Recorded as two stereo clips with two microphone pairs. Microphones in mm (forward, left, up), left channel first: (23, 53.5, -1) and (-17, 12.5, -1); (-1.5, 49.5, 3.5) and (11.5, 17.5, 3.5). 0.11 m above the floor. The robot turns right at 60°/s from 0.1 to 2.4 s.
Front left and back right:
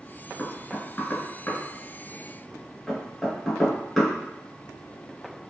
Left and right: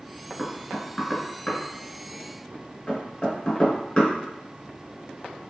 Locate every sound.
0.4 s knocking: straight ahead, 0.9 m; by 4.2 s 120° left, 0.9 m